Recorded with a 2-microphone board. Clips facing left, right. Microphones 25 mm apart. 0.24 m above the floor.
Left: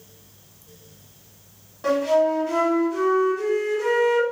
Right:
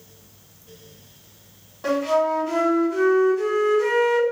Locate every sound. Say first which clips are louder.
1.8 s a flute: left 1 dB; centre (ahead or behind), 1.6 m